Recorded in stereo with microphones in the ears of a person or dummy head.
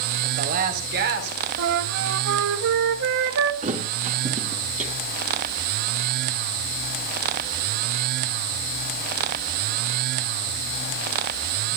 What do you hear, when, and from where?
0.2 s a woman speaking: 35° right (ahead or behind), 3.5 m; by 1.4 s 55° right (ahead or behind), 4.5 m
1.6 s a flute: 70° right (ahead or behind), 1.1 m
3.6 s a thud: 35° right (ahead or behind), 3 m